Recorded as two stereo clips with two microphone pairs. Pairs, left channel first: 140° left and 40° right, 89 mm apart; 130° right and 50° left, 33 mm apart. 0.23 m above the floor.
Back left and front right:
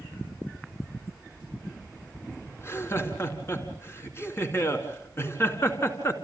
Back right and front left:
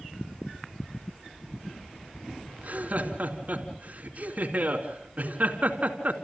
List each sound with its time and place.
2.6 s laughter: 80° left, 2.5 m